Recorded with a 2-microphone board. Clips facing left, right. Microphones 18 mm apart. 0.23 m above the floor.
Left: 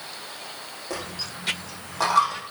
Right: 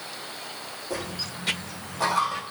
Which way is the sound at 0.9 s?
45° left (ahead or behind).